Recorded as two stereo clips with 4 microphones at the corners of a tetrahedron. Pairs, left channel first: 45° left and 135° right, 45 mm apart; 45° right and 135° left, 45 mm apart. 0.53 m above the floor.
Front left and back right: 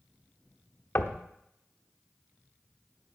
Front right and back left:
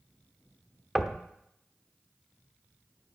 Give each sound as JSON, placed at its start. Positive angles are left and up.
{"t": 0.9, "sound": "knocking", "azimuth_deg": 55, "distance_m": 0.9}